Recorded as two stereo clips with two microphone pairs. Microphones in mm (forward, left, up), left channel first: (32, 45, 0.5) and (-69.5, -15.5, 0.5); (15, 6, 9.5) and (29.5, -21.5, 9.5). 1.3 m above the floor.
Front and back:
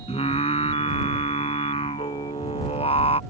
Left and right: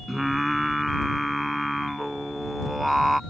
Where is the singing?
25° left.